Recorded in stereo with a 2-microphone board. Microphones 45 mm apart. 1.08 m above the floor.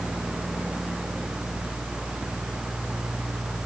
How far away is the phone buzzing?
I don't hear a phone buzzing.